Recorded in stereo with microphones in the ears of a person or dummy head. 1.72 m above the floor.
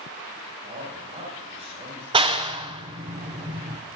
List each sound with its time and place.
0.6 s a man speaking: 35° right (ahead or behind), 8 m
2.1 s a clap: 25° right (ahead or behind), 0.8 m